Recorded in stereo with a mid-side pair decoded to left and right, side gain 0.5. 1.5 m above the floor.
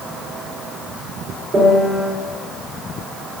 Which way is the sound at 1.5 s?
35° right.